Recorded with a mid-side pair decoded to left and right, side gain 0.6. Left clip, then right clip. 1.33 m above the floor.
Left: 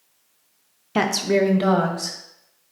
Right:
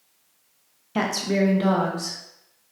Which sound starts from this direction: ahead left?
A woman speaking, at 0.9 s.